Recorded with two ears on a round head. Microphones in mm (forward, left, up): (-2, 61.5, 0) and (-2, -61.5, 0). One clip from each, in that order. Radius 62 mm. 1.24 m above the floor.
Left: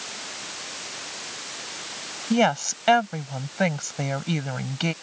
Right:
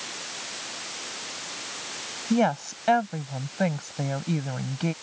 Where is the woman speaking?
60° left (ahead or behind).